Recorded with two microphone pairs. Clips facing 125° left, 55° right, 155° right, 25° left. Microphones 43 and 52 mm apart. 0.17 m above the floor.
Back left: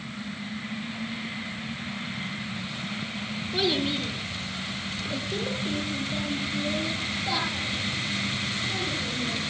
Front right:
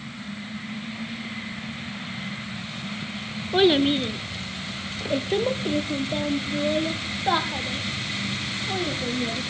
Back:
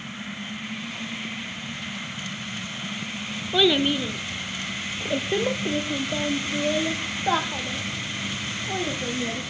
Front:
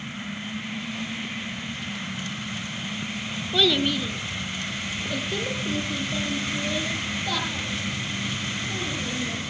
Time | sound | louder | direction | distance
3.5 | a child speaking | front right 8 dB, back 2 dB | 85° right | 1.0 m